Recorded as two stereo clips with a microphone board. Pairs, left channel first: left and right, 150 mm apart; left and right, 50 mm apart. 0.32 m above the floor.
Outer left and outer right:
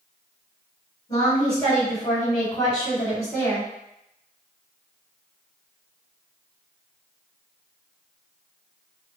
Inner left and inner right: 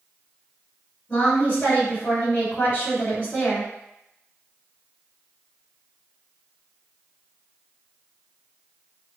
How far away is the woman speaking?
About 1.9 m.